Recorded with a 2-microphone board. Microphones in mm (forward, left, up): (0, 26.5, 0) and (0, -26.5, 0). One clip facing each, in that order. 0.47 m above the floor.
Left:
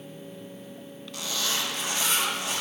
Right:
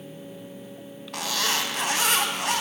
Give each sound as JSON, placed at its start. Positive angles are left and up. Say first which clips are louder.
{"t": 1.1, "sound": "a zipper", "louder": "right 4 dB", "side_deg": -70, "distance_m": 0.9}